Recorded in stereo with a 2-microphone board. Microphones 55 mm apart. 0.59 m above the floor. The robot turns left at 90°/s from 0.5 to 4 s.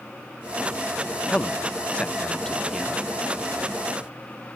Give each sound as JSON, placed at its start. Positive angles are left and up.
{"t": 1.3, "sound": "a man speaking", "side_deg": 20, "distance_m": 0.6}